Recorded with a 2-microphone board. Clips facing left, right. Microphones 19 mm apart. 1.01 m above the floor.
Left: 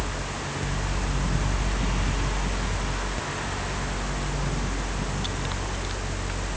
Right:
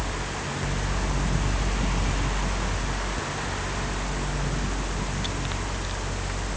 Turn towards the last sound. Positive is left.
No sound to turn to.